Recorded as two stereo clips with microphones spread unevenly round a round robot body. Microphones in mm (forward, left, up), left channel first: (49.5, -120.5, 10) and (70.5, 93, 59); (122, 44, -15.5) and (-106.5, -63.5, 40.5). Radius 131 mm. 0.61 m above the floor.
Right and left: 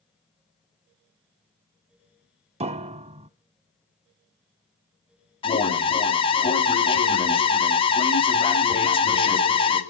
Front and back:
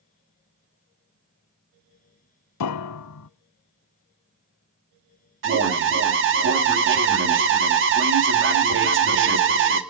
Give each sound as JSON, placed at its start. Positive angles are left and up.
{"t": 2.6, "sound": "a piano", "azimuth_deg": 45, "distance_m": 0.6}
{"t": 5.4, "sound": "an alarm", "azimuth_deg": -125, "distance_m": 2.0}